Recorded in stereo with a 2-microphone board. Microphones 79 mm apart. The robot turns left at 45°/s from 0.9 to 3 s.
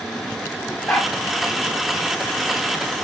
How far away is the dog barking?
About 5 m.